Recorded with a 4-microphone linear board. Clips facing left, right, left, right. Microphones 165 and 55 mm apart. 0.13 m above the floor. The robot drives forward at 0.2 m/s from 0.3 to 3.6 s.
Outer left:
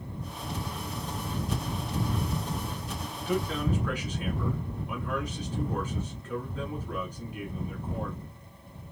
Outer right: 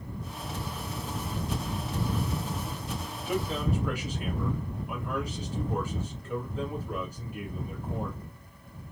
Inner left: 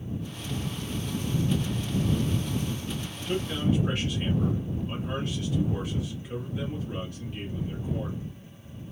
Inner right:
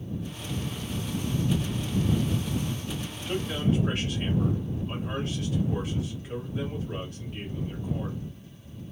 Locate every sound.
3.1 s a man speaking: 10° right (ahead or behind), 1.5 m